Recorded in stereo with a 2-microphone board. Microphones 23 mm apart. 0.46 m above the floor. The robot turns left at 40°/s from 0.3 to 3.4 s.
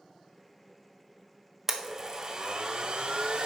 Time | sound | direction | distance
1.7 | a blender | 20° right | 0.9 m